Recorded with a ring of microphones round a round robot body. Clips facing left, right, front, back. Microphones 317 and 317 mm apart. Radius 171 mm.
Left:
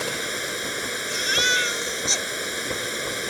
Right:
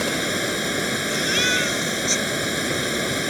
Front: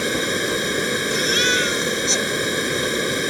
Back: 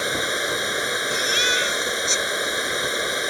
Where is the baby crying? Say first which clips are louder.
Right 6 dB, front 5 dB; 40° left.